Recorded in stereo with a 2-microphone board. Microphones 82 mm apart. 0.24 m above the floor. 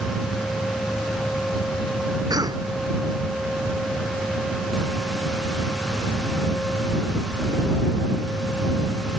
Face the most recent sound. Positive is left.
turn(degrees=-55)  # may be behind; listen again after turning